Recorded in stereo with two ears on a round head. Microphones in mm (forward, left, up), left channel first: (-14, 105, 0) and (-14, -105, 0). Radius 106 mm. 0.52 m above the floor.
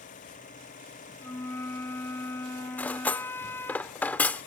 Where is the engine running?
35° left (ahead or behind).